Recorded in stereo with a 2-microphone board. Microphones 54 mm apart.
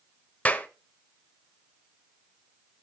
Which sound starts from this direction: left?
A clap, at 0.5 s.